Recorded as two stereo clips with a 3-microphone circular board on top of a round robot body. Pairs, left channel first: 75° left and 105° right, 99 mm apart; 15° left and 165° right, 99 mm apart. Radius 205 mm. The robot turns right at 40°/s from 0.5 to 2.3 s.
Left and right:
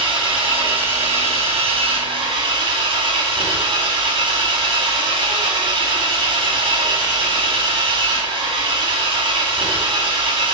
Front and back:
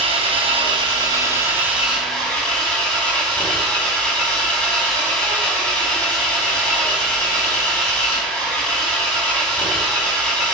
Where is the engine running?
135° right, 4 m; by 10.5 s 65° right, 4 m.